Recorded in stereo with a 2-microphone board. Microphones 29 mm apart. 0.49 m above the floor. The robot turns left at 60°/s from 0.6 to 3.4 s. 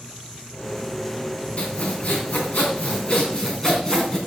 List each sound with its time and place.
1.6 s sawing: 135° left, 3.5 m; by 4.2 s 25° left, 3.5 m